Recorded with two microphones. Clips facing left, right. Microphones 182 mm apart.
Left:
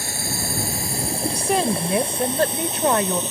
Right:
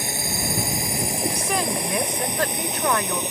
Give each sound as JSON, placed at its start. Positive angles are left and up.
{"t": 0.0, "sound": "a drone", "side_deg": -20}
{"t": 1.3, "sound": "a woman speaking", "side_deg": 30}